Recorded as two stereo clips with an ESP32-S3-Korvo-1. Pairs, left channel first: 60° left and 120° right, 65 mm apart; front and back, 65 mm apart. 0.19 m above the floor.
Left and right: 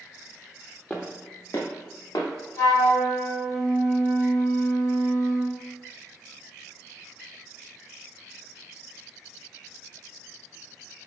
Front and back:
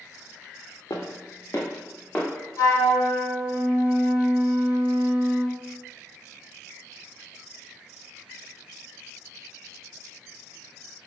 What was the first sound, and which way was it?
Footsteps, 10° right.